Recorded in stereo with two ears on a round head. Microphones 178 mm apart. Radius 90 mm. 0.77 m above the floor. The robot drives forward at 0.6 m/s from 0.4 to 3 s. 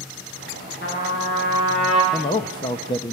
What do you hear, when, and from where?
0.8 s a trumpet: 65° left (ahead or behind), 10 m; by 2.0 s 60° left (ahead or behind), 10 m
2.1 s a man speaking: 20° left (ahead or behind), 1.0 m